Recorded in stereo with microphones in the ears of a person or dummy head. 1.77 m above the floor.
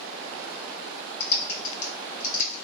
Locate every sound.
1.2 s typing on a keyboard: 50° left (ahead or behind), 1.8 m